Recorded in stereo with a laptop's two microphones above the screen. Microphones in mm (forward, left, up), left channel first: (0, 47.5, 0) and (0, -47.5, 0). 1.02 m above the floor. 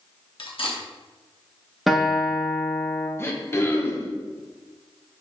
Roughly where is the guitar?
Centre.